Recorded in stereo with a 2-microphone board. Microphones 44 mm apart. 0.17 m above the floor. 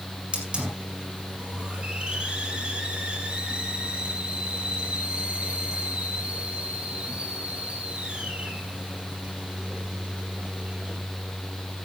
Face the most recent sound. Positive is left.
turn(degrees=-25)  # may be behind; listen again after turning